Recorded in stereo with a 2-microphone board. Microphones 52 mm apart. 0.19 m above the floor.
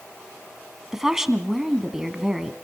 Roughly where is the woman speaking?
Centre.